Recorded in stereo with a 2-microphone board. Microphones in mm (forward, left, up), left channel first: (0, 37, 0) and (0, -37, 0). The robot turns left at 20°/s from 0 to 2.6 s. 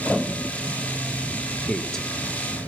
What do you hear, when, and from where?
1.7 s a man speaking: 10° left (ahead or behind), 3 m; by 2.0 s 5° left (ahead or behind), 3 m